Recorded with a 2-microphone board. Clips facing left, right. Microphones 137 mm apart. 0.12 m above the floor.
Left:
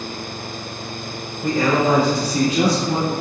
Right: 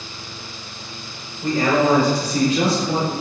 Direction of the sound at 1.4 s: 25° right (ahead or behind).